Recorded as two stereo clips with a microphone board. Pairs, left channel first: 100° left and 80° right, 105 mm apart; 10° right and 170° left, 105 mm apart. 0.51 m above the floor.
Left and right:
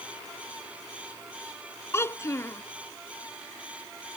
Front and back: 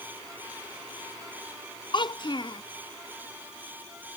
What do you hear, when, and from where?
1.9 s a child speaking: 35° left